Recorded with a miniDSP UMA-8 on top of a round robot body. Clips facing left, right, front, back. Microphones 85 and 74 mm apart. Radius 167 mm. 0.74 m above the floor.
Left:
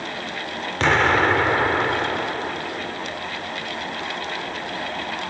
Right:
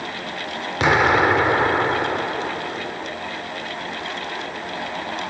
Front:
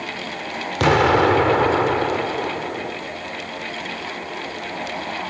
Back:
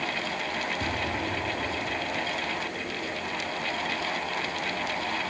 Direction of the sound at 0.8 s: 10° right.